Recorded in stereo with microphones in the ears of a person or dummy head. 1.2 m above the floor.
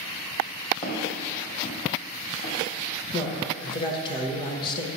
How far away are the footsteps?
About 2.5 m.